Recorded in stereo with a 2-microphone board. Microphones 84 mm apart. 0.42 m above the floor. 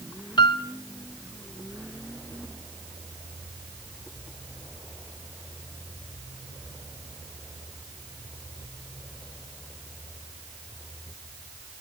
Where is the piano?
65° left (ahead or behind), 0.9 m.